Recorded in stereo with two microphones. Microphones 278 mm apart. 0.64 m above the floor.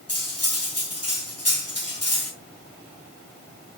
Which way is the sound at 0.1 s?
60° left (ahead or behind).